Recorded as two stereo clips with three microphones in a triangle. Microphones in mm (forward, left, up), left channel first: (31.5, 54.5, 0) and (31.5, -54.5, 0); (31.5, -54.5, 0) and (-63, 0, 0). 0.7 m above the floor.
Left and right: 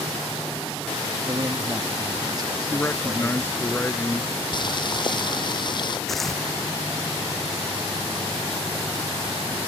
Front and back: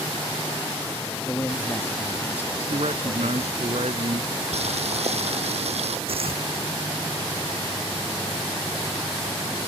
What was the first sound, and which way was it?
A man speaking, 80° right.